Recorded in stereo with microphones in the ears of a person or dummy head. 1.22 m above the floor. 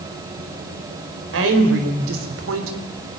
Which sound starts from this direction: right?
A woman speaking, at 1.3 s.